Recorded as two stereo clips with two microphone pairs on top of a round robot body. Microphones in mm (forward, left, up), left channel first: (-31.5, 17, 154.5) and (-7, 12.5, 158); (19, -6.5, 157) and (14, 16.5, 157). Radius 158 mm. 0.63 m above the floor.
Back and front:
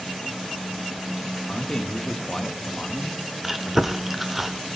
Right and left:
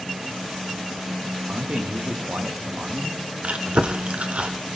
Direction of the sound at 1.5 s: 120° left.